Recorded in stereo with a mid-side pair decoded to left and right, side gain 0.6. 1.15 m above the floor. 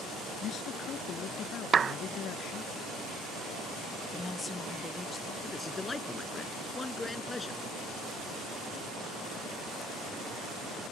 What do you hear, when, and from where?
0.4 s a man speaking: 50° left
1.7 s a clap: 35° right
4.1 s a woman speaking: 20° left
5.4 s a man speaking: 20° left